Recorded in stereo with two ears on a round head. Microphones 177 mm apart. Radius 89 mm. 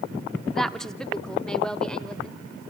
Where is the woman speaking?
Centre (ahead or behind), 0.6 m; by 2.4 s 5° left (ahead or behind), 1.7 m.